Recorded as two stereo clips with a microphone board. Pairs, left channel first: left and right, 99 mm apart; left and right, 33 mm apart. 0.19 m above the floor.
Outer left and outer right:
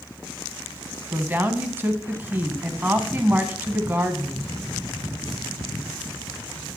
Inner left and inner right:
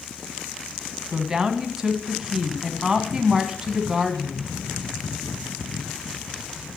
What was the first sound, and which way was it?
A woman speaking, 20° right (ahead or behind).